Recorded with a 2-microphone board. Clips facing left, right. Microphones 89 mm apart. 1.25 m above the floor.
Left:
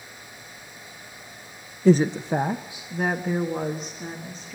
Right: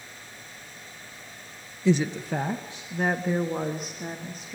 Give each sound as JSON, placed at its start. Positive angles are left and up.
{"t": 1.9, "sound": "a woman speaking", "side_deg": 50, "distance_m": 0.6}